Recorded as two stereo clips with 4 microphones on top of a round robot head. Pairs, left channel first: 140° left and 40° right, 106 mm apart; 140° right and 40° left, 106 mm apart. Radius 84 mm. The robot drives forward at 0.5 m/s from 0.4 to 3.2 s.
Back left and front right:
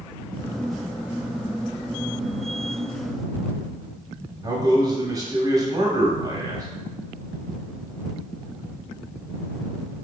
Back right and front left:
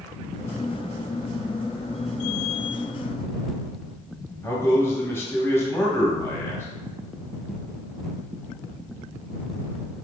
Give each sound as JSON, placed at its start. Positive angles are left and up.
{"t": 4.4, "sound": "a man speaking", "azimuth_deg": -80, "distance_m": 1.2}